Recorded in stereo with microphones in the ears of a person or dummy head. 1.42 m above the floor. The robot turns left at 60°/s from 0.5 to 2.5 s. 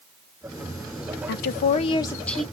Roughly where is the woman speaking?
Left.